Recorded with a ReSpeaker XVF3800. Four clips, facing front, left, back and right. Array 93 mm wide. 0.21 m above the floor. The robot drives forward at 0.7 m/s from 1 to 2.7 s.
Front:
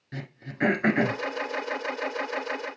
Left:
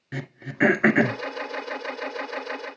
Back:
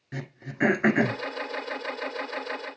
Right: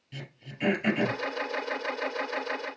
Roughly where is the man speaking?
I don't hear a man speaking.